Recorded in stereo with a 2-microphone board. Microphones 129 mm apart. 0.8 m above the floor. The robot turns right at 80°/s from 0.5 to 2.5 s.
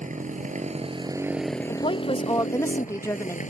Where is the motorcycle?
80° right; by 3.5 s 80° left.